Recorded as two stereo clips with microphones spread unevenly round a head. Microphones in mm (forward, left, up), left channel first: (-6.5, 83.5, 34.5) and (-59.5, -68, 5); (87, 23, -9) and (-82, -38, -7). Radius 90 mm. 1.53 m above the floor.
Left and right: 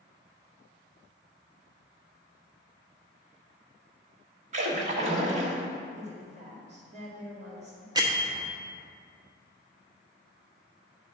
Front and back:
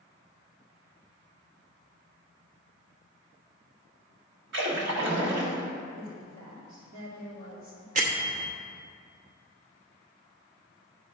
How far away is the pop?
I don't hear a pop.